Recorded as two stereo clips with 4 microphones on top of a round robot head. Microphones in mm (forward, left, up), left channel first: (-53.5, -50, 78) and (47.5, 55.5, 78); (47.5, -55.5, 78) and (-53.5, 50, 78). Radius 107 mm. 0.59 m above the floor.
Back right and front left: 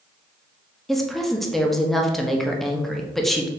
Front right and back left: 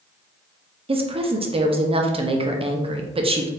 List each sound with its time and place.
0.9 s a woman speaking: 140° left, 0.8 m